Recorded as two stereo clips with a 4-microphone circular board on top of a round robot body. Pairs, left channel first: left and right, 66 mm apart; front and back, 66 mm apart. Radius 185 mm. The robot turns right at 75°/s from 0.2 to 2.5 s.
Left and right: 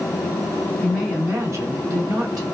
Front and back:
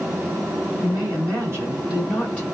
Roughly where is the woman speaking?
Behind.